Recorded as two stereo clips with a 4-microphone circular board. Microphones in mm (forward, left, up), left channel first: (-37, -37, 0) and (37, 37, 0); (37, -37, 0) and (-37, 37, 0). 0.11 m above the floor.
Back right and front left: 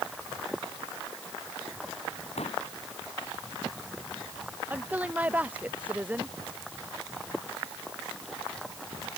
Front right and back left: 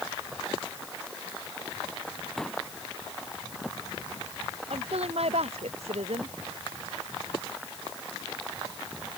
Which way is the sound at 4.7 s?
120° left.